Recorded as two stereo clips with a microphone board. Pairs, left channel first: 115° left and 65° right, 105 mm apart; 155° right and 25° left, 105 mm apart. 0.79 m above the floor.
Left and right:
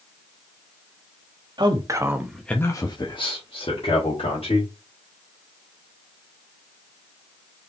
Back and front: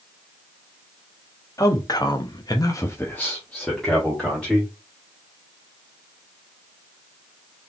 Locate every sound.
1.6 s a man speaking: 105° right, 1.2 m; by 4.7 s 115° left, 2.5 m